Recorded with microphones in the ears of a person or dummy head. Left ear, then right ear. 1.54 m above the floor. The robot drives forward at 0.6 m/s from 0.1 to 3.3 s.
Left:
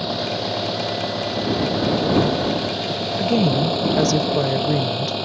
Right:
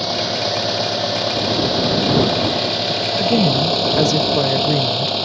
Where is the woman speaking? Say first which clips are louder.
Right 2 dB; 15° right (ahead or behind).